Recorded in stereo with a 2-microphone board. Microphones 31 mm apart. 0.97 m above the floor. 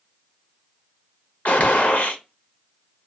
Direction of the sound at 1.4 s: 60° left (ahead or behind).